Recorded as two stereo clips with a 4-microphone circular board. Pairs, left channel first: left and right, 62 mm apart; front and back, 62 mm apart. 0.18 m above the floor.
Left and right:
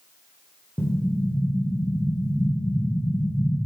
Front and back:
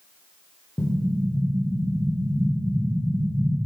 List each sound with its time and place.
0.8 s an explosion: 25° left, 3 m